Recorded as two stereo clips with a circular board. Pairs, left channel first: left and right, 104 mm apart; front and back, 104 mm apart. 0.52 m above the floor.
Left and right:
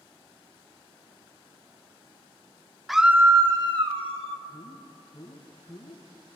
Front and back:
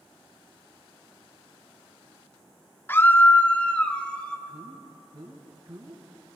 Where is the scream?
5° left, 0.7 m; by 4.4 s 80° right, 1.4 m.